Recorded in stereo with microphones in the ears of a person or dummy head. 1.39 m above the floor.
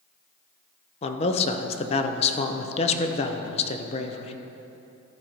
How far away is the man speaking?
About 0.7 m.